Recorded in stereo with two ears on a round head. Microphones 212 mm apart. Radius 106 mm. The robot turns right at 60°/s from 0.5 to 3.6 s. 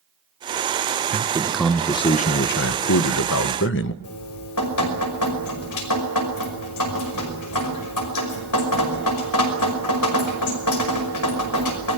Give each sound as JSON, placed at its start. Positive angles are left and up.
{"t": 1.1, "sound": "a man speaking", "azimuth_deg": -30, "distance_m": 1.2}
{"t": 4.0, "sound": "dripping", "side_deg": 85, "distance_m": 5.5}